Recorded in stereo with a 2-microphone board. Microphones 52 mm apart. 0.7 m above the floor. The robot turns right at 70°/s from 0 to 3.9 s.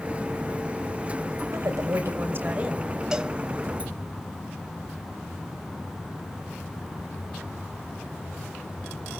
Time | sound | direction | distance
1.5 | a woman speaking | 100° right | 3 m
3.1 | a cowbell | 15° right (ahead or behind) | 0.9 m